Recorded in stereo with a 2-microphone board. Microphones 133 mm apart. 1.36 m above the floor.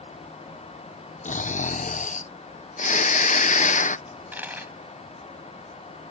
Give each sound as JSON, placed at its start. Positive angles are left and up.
{"t": 1.2, "sound": "snoring", "side_deg": 70}
{"t": 4.1, "sound": "a dropped coin", "side_deg": -15}